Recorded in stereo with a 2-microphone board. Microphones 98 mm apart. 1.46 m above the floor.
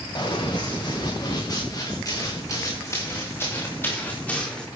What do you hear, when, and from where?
0.1 s running footsteps: 50° left (ahead or behind), 9 m; by 4.7 s 10° left (ahead or behind), 4.5 m